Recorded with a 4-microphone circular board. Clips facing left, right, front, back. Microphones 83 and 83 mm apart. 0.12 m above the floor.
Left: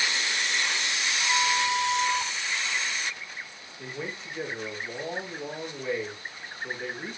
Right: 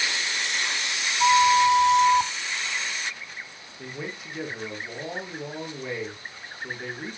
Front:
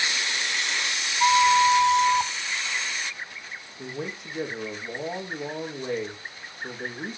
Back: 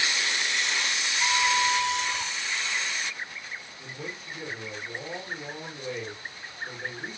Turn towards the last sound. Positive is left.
turn(degrees=-15)